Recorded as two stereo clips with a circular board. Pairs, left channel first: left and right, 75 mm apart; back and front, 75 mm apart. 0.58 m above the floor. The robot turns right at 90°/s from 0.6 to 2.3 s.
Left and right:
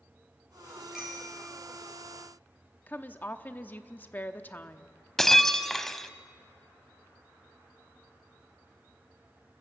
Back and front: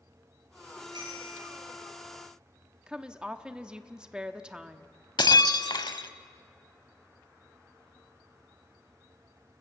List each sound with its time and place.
0.9 s a bicycle bell: 5° right, 8 m; by 1.5 s 45° left, 8 m
2.9 s a woman speaking: 65° left, 0.8 m
5.2 s breaking glass: 175° left, 0.8 m